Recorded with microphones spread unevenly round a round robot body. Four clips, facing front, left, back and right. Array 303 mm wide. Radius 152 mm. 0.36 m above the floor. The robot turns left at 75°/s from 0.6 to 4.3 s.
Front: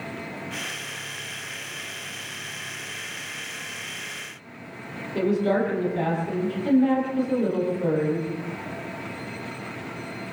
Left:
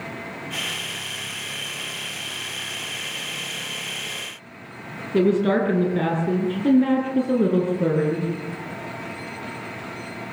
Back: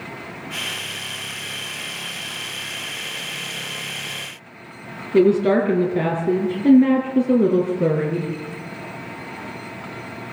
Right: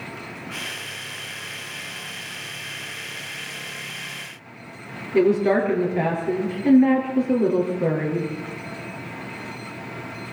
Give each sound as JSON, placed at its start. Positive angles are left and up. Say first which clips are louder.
{"t": 5.1, "sound": "a woman speaking", "louder": "right 1 dB, back 7 dB", "azimuth_deg": 155, "distance_m": 6.5}